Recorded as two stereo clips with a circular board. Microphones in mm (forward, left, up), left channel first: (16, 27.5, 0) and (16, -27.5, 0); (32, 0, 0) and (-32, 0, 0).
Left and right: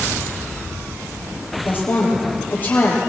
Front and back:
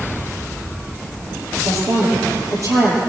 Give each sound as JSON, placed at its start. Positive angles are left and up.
{"t": 1.6, "sound": "a woman speaking", "azimuth_deg": 145, "distance_m": 5.5}